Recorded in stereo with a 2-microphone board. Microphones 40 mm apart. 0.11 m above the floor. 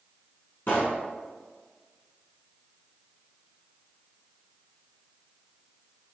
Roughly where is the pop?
Left.